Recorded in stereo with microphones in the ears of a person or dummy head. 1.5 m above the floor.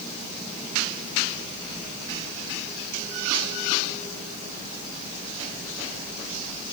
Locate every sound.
Only background noise.